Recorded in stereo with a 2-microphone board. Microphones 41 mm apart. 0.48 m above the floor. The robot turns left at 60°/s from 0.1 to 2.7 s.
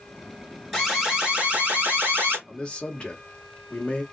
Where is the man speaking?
15° left (ahead or behind), 1.0 m; by 4.0 s 25° left (ahead or behind), 1.0 m.